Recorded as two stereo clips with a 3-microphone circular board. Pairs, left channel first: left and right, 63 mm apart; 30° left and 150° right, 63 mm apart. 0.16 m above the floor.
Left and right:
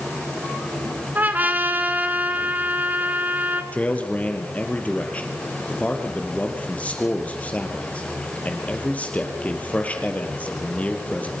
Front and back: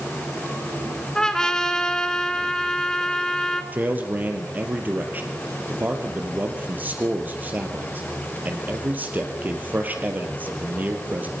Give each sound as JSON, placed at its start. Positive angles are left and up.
{"t": 1.1, "sound": "a trumpet", "azimuth_deg": -45, "distance_m": 1.8}
{"t": 3.7, "sound": "a man speaking", "azimuth_deg": 150, "distance_m": 4.0}